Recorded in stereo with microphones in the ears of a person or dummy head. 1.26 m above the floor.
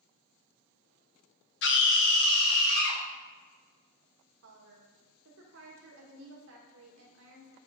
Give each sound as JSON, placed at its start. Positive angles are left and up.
{"t": 1.6, "sound": "a scream", "side_deg": 55, "distance_m": 1.0}
{"t": 4.4, "sound": "a woman speaking", "side_deg": -65, "distance_m": 1.6}